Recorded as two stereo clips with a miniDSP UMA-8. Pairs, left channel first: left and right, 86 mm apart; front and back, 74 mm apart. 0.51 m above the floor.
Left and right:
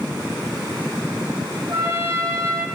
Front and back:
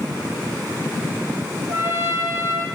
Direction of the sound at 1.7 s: 140° right.